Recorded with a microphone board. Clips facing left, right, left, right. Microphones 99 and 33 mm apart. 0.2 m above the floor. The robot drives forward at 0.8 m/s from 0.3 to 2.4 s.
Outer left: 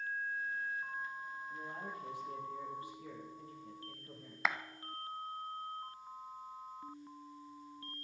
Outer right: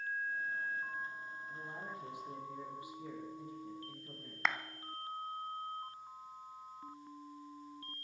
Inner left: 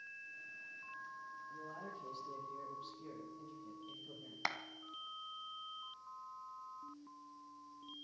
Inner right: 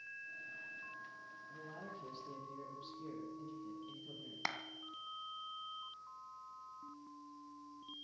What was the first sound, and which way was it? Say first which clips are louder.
A man speaking: even, inner right 1 dB; 20° right (ahead or behind).